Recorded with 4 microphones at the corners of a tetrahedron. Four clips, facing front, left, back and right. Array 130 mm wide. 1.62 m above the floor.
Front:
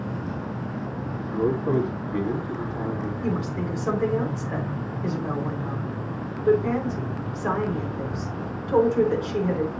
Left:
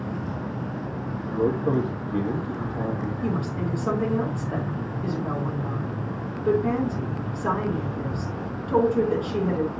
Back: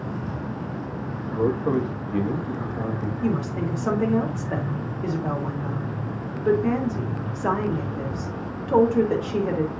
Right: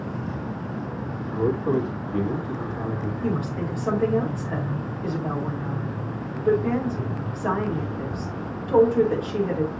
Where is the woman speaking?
Straight behind, 4 m.